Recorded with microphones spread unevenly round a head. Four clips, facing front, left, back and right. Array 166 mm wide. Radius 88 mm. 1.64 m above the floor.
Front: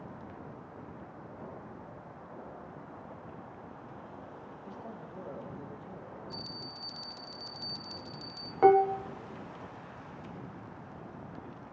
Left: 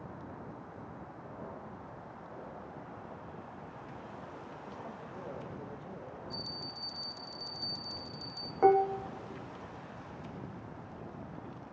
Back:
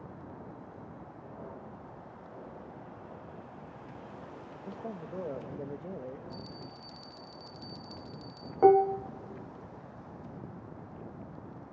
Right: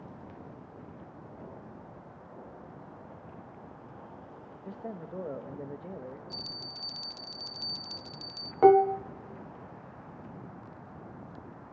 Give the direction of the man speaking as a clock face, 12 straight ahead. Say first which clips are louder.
Right 8 dB, back 6 dB; 4 o'clock.